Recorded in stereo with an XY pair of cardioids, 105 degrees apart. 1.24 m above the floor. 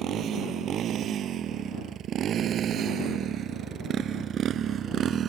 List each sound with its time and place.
0.0 s a motorcycle: 65° right; by 5.3 s 55° right